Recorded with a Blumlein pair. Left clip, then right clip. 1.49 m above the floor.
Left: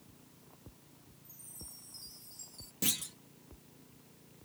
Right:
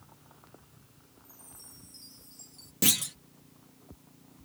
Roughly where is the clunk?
Ahead right.